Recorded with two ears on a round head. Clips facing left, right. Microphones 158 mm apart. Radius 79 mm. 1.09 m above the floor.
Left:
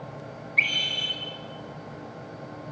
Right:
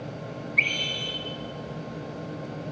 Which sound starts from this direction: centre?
A scream, at 0.6 s.